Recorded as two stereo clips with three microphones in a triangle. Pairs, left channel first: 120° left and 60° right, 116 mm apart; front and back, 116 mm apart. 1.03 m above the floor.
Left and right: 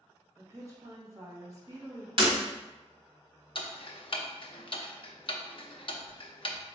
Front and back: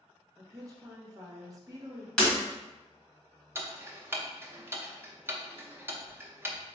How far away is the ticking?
About 0.6 m.